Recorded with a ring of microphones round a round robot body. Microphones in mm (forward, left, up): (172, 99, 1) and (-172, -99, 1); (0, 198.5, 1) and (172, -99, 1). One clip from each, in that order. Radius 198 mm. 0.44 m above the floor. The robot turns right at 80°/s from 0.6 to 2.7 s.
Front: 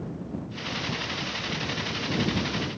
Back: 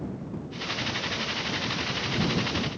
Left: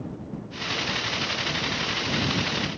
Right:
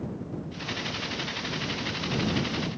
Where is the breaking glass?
No breaking glass in this recording.